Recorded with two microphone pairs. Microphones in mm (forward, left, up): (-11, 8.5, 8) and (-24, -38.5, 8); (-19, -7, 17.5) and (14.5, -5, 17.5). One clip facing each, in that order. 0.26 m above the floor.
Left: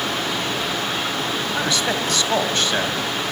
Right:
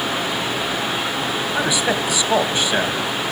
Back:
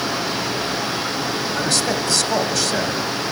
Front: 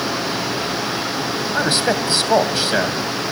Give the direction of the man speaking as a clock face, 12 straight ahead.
1 o'clock.